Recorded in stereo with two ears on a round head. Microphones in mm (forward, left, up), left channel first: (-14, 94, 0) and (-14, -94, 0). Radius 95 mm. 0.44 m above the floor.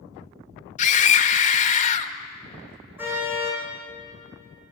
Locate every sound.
0.8 s a scream: 35° left (ahead or behind), 1.5 m
3.0 s a car horn: 10° right (ahead or behind), 10 m